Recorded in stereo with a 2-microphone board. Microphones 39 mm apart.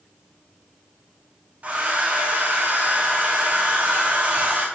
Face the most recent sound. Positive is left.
turn(degrees=-40)  # may be behind; listen again after turning